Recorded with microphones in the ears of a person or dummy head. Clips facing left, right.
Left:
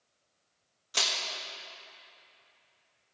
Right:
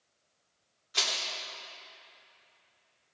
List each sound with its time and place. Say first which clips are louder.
0.9 s crushing: left 1 dB; 50° left (ahead or behind), 1.8 m